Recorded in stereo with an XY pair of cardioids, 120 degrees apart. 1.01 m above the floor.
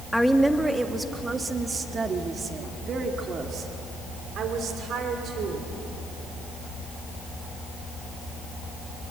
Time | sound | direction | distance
0.1 | a woman speaking | straight ahead | 1.7 m